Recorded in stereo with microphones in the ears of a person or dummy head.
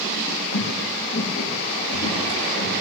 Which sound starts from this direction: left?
Footsteps, at 0.5 s.